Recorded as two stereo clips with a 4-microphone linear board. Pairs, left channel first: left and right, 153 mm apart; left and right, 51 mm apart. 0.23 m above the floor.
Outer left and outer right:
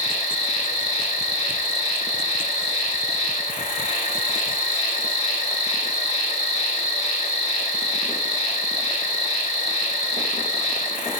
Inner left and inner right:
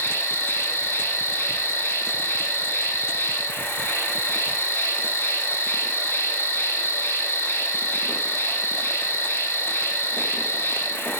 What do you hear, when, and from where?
0.0 s an insect: 50° left (ahead or behind), 0.8 m